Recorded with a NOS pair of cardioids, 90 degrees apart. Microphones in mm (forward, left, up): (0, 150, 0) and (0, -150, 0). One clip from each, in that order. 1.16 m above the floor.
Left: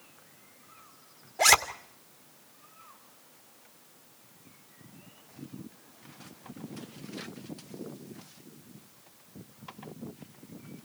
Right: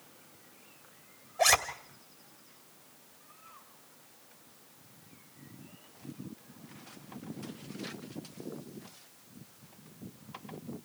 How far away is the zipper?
About 2.5 m.